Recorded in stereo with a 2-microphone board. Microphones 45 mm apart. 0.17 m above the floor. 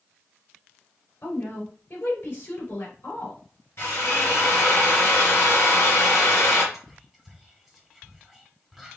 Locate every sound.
1.2 s a woman speaking: 50° left (ahead or behind), 3.5 m
3.8 s a drill: 55° left (ahead or behind), 3 m
6.7 s whispering: 5° right (ahead or behind), 1.4 m